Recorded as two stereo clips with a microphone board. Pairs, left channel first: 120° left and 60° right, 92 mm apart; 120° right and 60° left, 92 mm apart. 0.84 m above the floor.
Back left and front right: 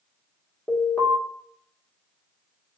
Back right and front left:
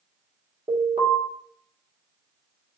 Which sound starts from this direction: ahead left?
An alarm, at 0.7 s.